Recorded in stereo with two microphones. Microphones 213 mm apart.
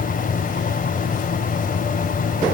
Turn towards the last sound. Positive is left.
No sound to turn to.